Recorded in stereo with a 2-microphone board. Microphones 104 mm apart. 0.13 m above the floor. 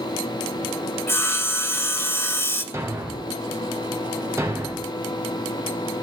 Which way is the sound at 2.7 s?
25° right (ahead or behind).